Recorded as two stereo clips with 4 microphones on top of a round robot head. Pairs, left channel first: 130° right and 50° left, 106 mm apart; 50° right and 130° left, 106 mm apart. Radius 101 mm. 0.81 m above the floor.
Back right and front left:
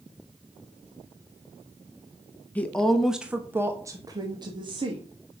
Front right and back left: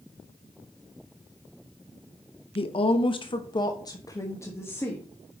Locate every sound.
2.5 s a woman speaking: 55° right, 1.1 m; by 5.0 s 20° left, 1.6 m